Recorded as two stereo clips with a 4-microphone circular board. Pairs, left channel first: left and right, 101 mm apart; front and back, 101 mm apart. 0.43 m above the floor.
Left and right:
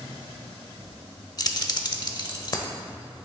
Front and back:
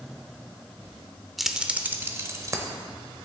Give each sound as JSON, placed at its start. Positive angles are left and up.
{"t": 1.4, "sound": "keys jangling", "azimuth_deg": 90, "distance_m": 0.8}